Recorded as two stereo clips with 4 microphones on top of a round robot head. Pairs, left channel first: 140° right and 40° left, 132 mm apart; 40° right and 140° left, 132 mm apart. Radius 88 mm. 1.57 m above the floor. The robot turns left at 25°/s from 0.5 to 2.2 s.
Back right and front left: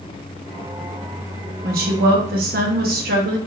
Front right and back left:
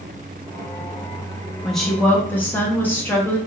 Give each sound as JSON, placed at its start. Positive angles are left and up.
{"t": 1.6, "sound": "a woman speaking", "azimuth_deg": 50, "distance_m": 0.8}